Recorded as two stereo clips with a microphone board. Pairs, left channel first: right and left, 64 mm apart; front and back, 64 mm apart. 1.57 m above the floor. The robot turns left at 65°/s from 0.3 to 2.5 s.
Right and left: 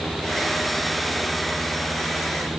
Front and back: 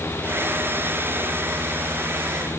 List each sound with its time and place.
Only background noise.